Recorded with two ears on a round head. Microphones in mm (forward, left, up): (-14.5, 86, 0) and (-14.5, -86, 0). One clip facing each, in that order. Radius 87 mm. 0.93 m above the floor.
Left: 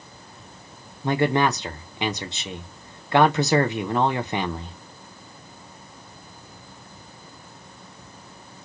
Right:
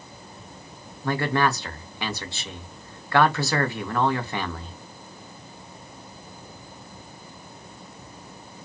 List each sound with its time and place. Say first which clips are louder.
1.0 s a man speaking: left 3 dB; 15° left (ahead or behind), 0.6 m